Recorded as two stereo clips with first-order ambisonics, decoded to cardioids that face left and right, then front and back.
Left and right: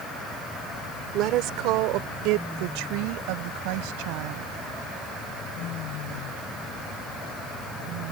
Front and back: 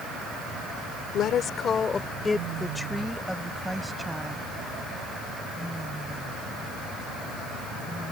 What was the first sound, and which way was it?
A woman speaking, 50° right.